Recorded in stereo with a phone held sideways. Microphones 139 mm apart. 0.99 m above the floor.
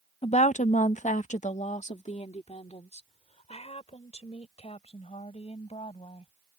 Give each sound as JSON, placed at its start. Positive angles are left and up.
{"t": 0.2, "sound": "a woman speaking", "side_deg": 40}